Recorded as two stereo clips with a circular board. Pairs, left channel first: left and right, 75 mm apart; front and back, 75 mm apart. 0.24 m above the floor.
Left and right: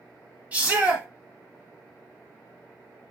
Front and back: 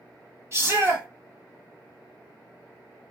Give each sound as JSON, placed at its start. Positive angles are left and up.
{"t": 0.5, "sound": "a shout", "azimuth_deg": -150, "distance_m": 1.7}